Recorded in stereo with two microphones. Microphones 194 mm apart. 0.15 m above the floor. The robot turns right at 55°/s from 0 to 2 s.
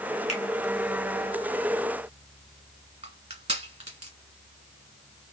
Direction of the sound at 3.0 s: 30° right (ahead or behind).